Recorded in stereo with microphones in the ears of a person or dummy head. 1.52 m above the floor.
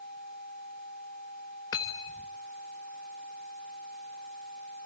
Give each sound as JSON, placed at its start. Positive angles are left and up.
{"t": 1.7, "sound": "cutlery clinking", "side_deg": 15, "distance_m": 0.8}